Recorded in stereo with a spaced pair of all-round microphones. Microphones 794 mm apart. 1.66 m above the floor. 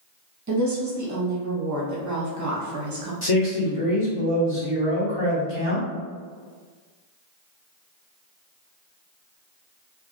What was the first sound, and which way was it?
A woman speaking, 25° right (ahead or behind).